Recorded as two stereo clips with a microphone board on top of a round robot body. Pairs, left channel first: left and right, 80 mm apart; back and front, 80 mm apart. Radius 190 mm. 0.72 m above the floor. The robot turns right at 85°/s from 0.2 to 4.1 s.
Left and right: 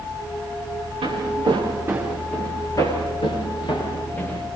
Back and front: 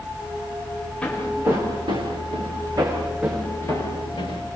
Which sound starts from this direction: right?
Footsteps, at 1.0 s.